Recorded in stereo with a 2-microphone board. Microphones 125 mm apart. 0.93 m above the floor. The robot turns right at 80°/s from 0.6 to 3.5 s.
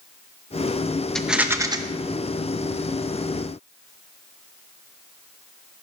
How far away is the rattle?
About 0.8 m.